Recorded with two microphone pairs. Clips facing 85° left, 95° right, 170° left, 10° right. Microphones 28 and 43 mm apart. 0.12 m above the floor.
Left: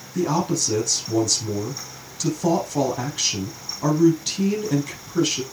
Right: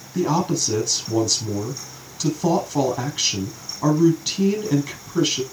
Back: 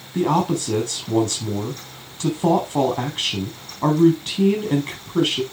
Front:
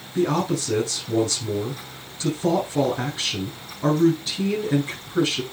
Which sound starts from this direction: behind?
A man speaking, at 0.1 s.